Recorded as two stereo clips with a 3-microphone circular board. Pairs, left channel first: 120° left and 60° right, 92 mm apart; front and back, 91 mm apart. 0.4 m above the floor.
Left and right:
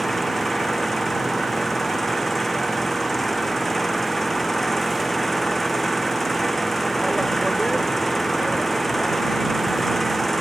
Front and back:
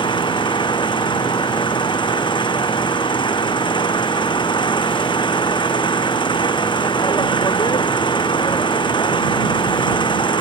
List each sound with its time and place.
0.0 s an engine running: 30° left